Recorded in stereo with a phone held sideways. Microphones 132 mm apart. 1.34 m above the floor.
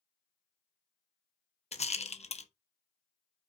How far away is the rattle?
About 0.9 m.